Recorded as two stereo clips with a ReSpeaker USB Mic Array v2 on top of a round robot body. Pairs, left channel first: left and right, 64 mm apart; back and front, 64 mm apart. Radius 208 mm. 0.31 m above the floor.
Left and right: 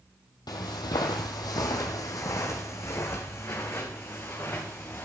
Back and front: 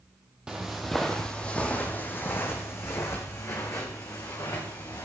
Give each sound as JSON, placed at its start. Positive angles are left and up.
{"t": 0.5, "sound": "footsteps", "azimuth_deg": 80, "distance_m": 1.0}